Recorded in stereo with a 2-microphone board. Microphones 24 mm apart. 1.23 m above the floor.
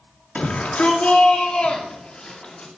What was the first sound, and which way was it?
A shout, 75° left (ahead or behind).